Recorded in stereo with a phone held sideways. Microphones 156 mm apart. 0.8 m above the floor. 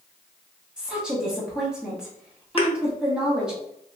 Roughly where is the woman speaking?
Centre.